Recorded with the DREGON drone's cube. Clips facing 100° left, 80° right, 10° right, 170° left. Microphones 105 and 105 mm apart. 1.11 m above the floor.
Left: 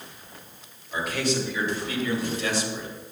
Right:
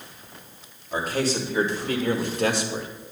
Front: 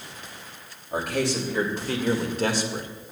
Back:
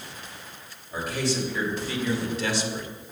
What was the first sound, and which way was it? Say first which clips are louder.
A man speaking: right 2 dB, front 2 dB; 25° right.